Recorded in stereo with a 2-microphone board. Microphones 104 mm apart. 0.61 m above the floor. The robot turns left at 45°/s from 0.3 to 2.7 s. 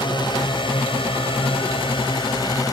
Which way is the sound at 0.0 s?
55° left (ahead or behind).